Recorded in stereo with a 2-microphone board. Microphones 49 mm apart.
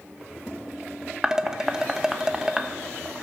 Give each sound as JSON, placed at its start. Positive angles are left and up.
{"t": 1.2, "sound": "dishes clattering", "side_deg": -15, "distance_m": 0.8}